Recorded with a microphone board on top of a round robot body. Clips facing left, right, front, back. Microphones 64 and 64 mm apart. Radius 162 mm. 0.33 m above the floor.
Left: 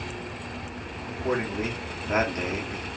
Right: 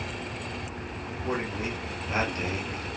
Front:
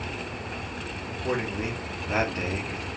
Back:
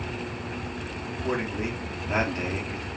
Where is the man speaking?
100° left, 1.0 m.